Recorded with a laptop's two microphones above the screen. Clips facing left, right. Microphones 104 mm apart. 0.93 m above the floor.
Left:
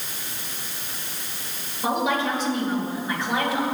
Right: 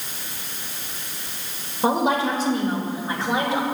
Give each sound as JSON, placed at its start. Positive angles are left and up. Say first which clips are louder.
{"t": 1.8, "sound": "a woman speaking", "louder": "right 3 dB", "side_deg": -40, "distance_m": 3.0}